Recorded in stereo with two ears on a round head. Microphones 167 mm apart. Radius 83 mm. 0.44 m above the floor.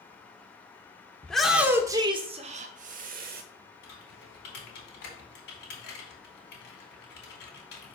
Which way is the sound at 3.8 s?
65° left (ahead or behind).